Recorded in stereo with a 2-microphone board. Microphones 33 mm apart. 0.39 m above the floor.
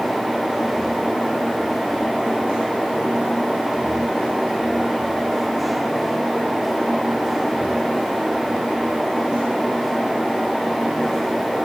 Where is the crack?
No crack in this recording.